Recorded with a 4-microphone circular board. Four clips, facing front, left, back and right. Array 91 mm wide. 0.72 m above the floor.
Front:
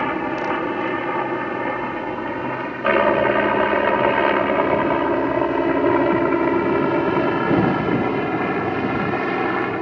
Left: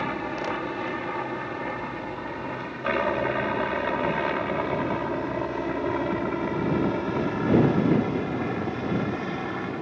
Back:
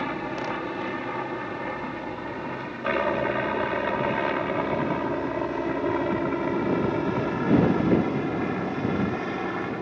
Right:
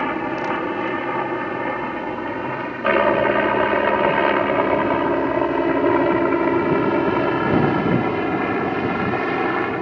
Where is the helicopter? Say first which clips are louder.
Right 6 dB, front 7 dB; 35° right; by 9.8 s 45° right.